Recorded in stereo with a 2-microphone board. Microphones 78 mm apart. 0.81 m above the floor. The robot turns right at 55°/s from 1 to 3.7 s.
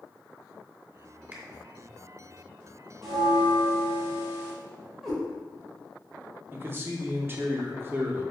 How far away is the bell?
About 0.8 m.